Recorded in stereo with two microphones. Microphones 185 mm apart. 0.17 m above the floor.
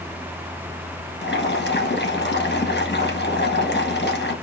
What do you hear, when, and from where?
1.2 s boiling: 65° left (ahead or behind), 1.3 m